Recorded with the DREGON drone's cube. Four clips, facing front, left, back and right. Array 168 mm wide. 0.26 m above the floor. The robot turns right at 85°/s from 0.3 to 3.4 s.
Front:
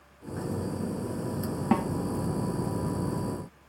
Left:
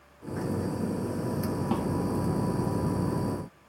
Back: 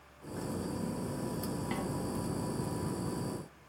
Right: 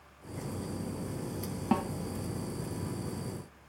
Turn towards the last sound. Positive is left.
turn(degrees=125)